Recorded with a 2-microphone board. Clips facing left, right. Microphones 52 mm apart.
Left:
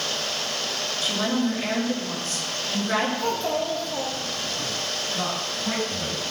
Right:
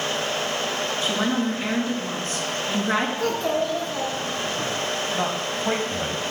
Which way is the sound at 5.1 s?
35° right (ahead or behind).